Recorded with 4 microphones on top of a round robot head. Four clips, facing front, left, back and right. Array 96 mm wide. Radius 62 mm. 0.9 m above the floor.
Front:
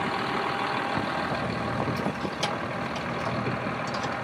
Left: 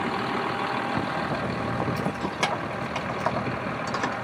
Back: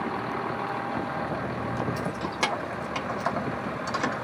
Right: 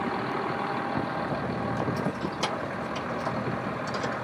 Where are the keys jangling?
125° left, 1.7 m.